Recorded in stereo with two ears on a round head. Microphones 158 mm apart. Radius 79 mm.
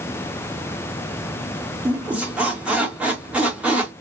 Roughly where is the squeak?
Centre.